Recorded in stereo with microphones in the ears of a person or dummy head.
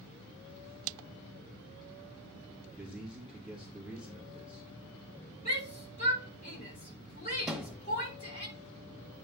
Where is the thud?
Centre (ahead or behind), 0.9 m.